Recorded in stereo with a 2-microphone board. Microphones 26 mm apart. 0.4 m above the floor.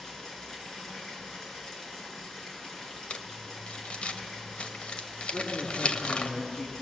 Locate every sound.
0.0 s running water: 20° left (ahead or behind), 4.5 m
3.1 s crumpling: 50° left (ahead or behind), 1.1 m
5.3 s a man speaking: 55° left (ahead or behind), 4.5 m